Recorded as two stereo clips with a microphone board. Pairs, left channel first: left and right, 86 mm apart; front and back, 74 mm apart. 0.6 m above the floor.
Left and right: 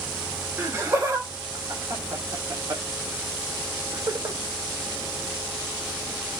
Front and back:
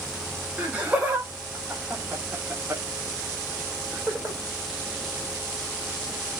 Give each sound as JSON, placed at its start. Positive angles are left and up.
{"t": 0.6, "sound": "laughter", "azimuth_deg": -125, "distance_m": 1.2}